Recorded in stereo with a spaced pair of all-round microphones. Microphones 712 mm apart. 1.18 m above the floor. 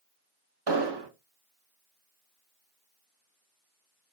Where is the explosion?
35° right (ahead or behind), 0.7 m.